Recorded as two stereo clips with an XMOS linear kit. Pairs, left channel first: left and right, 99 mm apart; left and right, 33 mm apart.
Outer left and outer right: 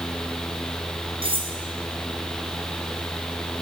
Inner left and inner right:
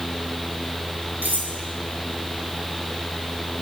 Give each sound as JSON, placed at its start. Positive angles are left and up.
{"t": 1.2, "sound": "cutlery clinking", "side_deg": -70, "distance_m": 3.5}